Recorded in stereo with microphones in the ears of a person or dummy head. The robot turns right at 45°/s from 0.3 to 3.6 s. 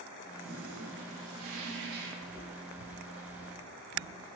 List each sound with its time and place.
0.4 s a toilet flushing: 130° right, 1.1 m; by 2.1 s 50° right, 1.1 m
2.2 s footsteps: 30° right (ahead or behind), 1.6 m; by 4.4 s 35° left (ahead or behind), 3 m